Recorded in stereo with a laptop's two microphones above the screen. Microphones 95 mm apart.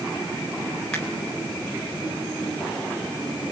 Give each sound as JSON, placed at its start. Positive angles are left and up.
{"t": 0.9, "sound": "a finger snap", "side_deg": 10, "distance_m": 3.5}